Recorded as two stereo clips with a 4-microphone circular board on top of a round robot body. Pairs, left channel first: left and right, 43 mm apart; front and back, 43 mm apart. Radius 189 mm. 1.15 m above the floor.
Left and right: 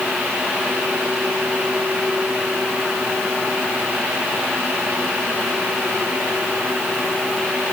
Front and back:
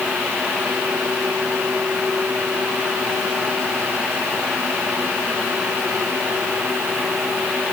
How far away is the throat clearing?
No throat clearing in this recording.